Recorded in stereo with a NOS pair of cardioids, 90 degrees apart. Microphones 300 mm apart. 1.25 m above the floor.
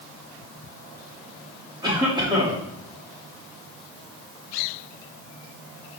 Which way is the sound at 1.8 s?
15° right.